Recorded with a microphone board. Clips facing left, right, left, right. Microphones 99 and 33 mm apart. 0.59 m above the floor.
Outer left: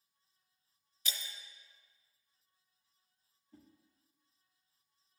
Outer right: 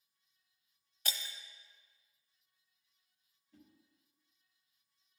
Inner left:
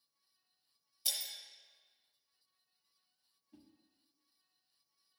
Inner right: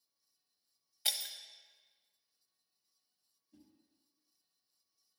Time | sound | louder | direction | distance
1.1 | breaking glass | outer right 1 dB, inner right 3 dB | 60° right (ahead or behind) | 0.7 m
3.5 | a whoosh | outer left 2 dB, inner left 1 dB | 45° left (ahead or behind) | 1.4 m